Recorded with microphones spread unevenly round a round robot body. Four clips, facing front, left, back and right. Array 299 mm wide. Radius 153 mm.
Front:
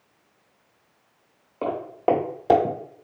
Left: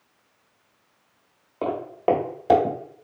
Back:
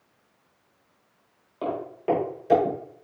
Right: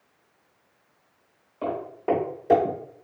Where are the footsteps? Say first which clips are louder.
Left 4 dB, front 4 dB; 55° left, 0.9 m; by 2.8 s 20° left, 1.2 m.